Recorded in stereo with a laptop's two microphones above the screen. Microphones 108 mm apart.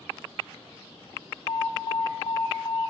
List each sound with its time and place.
1.5 s an alarm: 50° left (ahead or behind), 1.1 m